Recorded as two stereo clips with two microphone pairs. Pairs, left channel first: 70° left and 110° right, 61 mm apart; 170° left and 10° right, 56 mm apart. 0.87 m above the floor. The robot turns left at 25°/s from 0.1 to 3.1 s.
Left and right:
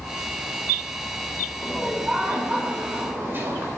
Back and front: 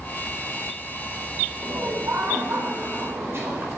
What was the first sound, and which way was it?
Laughter, 15° right.